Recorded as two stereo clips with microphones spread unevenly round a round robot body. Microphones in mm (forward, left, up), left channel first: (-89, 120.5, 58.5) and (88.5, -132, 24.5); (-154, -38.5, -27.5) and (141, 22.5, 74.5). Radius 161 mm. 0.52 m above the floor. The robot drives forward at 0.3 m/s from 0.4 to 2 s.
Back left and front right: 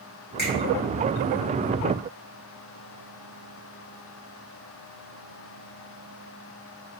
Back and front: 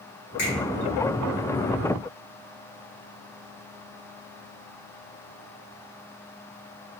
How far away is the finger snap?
About 1.6 m.